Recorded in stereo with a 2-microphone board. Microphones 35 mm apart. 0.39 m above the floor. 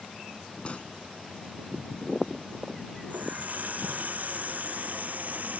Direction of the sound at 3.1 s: 55° right (ahead or behind).